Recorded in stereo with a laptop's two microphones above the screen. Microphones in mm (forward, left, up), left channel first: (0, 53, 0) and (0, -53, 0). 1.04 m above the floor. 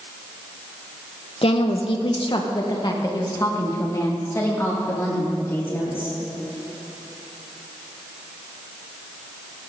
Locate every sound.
1.4 s a woman speaking: 60° left (ahead or behind), 0.8 m; by 6.1 s 20° left (ahead or behind), 3 m